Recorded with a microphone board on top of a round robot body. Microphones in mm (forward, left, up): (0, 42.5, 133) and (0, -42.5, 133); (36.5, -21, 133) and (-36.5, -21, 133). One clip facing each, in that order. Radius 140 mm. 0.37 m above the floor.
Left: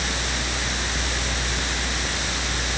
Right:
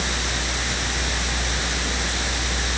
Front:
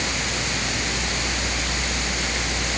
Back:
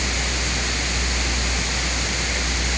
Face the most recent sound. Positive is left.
No sound to turn to.